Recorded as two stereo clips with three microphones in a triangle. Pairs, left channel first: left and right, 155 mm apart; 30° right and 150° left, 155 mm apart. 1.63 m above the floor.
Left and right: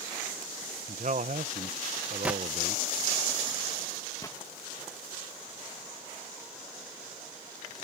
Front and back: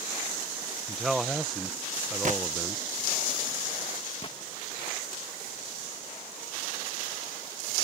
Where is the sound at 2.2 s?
170° right.